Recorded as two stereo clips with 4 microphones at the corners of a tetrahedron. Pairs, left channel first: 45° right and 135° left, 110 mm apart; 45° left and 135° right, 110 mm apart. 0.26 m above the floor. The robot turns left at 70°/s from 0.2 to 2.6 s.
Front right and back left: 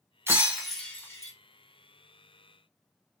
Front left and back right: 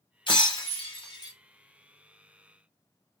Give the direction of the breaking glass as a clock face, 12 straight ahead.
9 o'clock.